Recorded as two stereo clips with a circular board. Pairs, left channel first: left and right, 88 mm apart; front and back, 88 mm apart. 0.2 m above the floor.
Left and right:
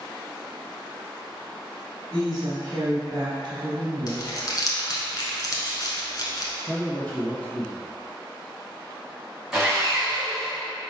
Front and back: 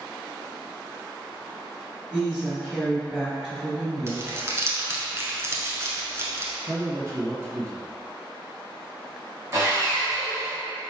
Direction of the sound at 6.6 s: 155° left.